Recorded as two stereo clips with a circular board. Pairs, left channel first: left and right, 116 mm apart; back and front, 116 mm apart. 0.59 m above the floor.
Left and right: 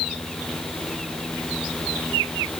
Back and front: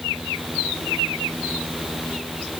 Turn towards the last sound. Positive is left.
No sound to turn to.